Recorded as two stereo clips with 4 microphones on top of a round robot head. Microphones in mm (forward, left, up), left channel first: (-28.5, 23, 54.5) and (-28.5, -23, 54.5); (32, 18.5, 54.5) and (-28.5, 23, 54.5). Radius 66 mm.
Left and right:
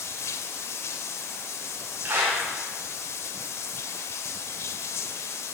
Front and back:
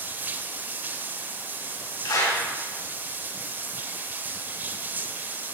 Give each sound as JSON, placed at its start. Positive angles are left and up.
{"t": 0.0, "sound": "running water", "azimuth_deg": 115, "distance_m": 0.7}
{"t": 2.0, "sound": "a clap", "azimuth_deg": -30, "distance_m": 4.5}